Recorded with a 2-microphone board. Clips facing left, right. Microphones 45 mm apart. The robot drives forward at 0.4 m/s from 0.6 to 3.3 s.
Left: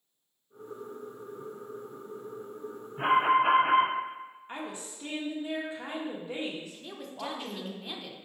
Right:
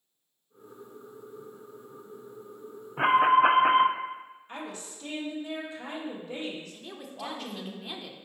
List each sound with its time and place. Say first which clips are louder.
3.0 s an alarm: right 3 dB; 60° right (ahead or behind), 0.5 m; by 3.9 s 65° right (ahead or behind), 0.5 m
4.5 s a woman speaking: even; 25° left (ahead or behind), 1.2 m
6.7 s a woman speaking: even; centre (ahead or behind), 0.5 m